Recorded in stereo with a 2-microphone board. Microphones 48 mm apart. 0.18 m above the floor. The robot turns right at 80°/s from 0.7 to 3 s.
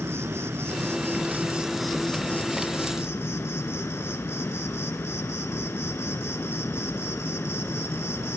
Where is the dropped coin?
I don't hear a dropped coin.